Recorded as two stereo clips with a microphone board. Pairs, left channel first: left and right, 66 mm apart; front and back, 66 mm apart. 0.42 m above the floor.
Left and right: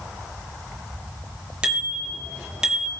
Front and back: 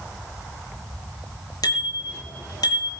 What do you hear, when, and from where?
1.6 s a bicycle bell: 15° right, 5.5 m